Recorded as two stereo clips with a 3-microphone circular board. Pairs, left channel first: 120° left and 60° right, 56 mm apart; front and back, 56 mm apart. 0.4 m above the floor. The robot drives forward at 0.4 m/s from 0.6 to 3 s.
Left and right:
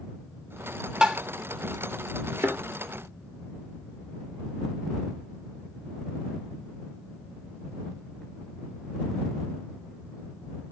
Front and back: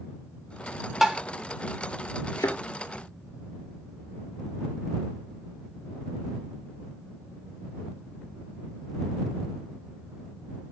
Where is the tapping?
100° right, 0.8 m; by 1.2 s 115° right, 0.8 m.